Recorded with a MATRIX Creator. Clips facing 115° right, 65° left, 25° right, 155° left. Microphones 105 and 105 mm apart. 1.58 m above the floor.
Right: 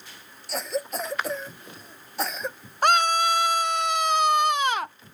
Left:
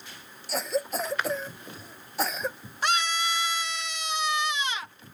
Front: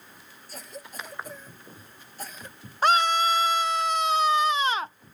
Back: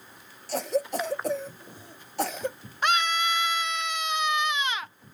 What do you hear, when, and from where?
0.5 s a cough: 155° left
2.8 s a scream: 75° right